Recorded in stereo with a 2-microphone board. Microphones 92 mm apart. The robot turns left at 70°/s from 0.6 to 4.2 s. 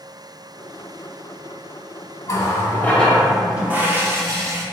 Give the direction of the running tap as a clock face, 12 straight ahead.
10 o'clock.